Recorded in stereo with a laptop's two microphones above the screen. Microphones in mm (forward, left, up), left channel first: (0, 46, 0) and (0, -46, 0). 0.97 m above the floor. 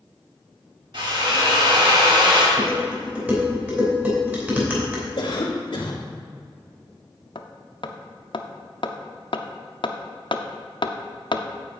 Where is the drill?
60° right (ahead or behind), 1.8 m.